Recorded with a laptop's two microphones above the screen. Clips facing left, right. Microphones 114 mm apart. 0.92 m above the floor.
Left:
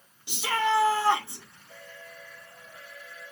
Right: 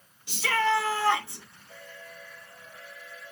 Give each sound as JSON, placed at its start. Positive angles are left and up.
{"t": 0.3, "sound": "a shout", "side_deg": 20, "distance_m": 2.5}